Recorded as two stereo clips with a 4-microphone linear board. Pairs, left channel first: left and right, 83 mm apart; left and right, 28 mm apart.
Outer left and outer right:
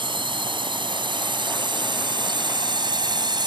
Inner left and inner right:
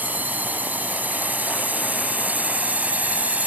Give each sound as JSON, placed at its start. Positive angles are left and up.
{"t": 0.0, "sound": "a drone", "side_deg": -75}